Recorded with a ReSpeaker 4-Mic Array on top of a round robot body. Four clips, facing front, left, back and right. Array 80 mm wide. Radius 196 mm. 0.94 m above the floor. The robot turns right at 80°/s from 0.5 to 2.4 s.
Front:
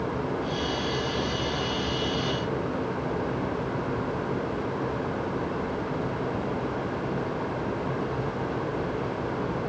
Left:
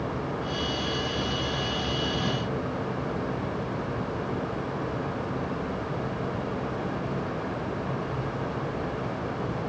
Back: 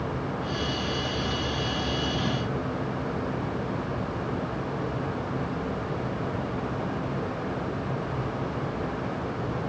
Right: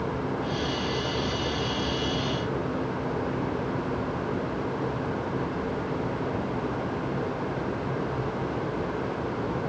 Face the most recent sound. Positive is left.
No sound to turn to.